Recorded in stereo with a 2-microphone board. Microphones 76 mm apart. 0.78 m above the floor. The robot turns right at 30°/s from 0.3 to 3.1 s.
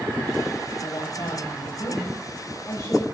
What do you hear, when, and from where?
0.8 s a woman speaking: 70° left, 3 m; by 3.1 s 140° left, 3 m